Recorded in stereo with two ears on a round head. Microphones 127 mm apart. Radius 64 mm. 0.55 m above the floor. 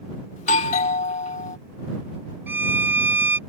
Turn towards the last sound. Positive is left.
turn(degrees=-15)  # may be behind; listen again after turning